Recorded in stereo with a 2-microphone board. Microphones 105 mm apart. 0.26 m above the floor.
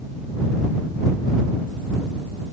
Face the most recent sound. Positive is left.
No sound to turn to.